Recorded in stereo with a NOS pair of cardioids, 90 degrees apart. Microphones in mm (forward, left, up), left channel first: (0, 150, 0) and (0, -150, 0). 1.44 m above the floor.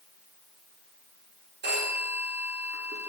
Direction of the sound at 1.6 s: 40° right.